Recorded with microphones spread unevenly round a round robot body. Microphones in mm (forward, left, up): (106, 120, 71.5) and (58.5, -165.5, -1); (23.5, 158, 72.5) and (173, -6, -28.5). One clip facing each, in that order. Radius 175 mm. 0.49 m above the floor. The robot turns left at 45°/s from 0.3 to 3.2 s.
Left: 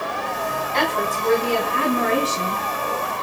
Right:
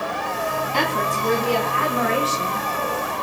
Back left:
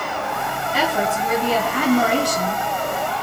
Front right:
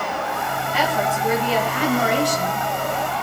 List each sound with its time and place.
0.7 s a woman speaking: 160° right, 3.5 m; by 2.7 s 115° left, 3.5 m